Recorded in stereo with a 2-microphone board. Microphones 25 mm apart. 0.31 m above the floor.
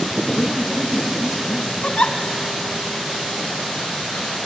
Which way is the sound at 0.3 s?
15° right (ahead or behind).